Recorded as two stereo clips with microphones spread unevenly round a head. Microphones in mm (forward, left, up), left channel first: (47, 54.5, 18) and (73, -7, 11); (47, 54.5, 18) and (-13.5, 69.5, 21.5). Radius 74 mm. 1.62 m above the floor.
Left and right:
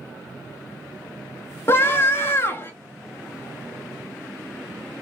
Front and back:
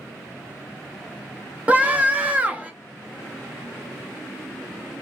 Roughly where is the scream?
Behind left.